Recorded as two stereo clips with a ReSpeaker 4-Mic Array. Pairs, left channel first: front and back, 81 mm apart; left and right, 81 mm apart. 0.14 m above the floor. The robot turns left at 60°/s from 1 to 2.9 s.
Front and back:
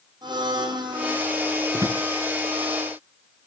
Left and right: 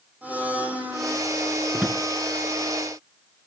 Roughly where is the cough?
I don't hear a cough.